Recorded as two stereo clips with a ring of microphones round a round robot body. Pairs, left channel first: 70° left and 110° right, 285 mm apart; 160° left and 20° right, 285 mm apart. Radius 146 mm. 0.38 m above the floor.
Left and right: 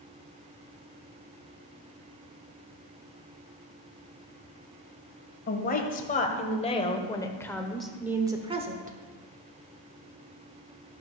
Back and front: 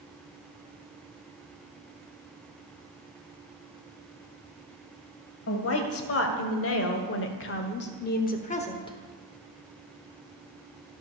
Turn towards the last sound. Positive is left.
turn(degrees=-140)